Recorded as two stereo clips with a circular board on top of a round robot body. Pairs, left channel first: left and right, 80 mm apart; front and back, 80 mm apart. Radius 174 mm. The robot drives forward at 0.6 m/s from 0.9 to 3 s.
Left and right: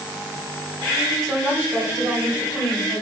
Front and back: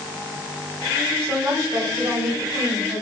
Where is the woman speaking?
135° right, 1.5 m; by 3.0 s 155° right, 2.5 m.